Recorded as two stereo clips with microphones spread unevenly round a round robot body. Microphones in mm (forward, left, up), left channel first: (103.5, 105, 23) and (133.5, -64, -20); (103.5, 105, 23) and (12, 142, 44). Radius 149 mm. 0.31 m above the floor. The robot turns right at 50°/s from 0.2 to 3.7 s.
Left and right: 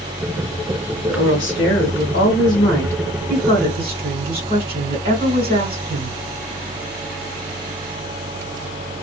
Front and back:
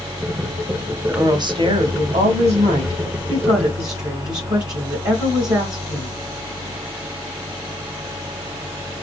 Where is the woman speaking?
95° left, 1.9 m; by 6.2 s 135° right, 1.9 m.